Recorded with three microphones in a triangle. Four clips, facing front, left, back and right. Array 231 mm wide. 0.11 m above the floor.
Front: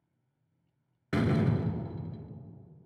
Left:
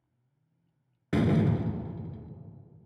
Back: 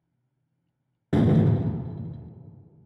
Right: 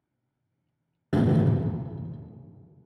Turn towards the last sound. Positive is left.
turn(degrees=-160)